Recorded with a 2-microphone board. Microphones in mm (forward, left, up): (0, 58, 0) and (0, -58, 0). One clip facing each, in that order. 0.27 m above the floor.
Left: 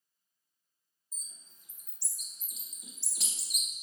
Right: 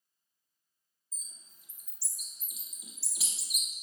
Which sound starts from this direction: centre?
A bird, at 1.1 s.